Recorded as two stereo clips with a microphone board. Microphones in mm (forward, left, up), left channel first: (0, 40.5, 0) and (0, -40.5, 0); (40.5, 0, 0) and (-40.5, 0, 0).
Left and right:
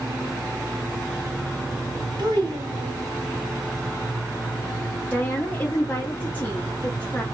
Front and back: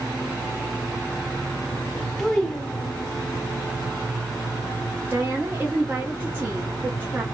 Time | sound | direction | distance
2.2 | a child speaking | 85° right | 1.2 m
5.1 | a woman speaking | 140° left | 0.7 m